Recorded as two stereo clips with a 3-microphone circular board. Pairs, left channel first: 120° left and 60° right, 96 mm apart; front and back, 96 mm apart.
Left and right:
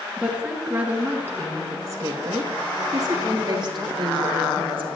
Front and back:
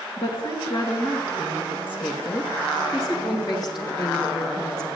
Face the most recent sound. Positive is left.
turn(degrees=-45)